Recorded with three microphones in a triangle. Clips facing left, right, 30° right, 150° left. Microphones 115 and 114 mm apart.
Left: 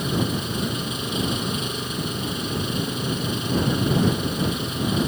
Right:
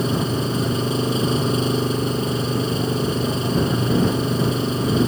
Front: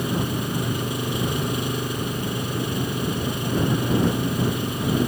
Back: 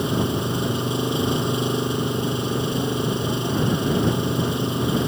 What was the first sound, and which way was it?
An engine running, 145° right.